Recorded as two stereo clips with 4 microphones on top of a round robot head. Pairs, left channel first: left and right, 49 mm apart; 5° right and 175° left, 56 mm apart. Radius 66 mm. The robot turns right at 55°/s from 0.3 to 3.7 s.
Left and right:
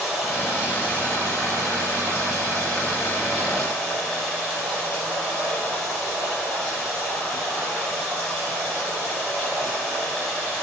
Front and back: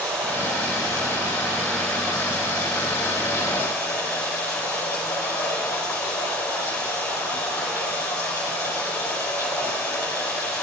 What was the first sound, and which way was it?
Running water, 175° right.